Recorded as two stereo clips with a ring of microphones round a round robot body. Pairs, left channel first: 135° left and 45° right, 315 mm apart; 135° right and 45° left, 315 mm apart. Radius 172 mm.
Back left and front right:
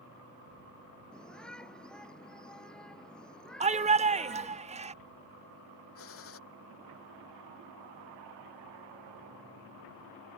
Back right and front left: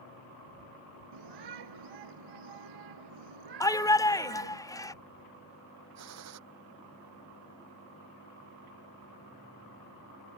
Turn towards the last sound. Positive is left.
turn(degrees=85)